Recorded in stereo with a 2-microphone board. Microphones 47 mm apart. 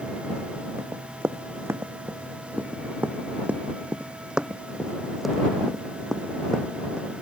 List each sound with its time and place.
0.8 s running footsteps: 65° right (ahead or behind); by 7.2 s 20° left (ahead or behind)